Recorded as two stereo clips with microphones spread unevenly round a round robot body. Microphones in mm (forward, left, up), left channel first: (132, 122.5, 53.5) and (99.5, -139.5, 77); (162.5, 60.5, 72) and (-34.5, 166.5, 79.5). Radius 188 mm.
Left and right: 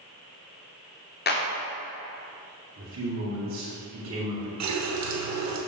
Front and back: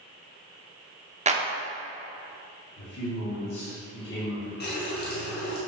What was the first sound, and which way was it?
A clap, 100° left.